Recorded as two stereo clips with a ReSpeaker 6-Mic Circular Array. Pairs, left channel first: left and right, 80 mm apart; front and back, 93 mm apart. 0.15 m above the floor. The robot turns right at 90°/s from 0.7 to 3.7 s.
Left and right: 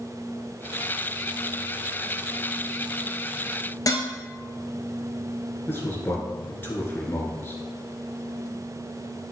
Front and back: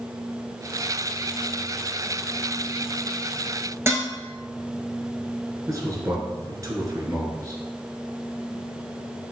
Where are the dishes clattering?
125° left, 1.8 m.